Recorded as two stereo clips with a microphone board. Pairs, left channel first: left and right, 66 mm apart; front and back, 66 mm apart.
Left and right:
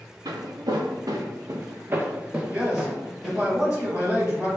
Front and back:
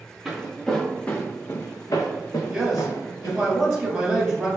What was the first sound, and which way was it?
Footsteps, 95° right.